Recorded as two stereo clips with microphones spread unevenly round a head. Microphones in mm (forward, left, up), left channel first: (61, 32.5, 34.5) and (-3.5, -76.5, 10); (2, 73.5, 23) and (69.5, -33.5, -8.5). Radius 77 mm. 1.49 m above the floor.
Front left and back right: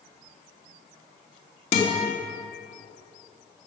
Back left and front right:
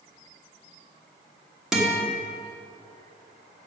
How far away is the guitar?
About 3 m.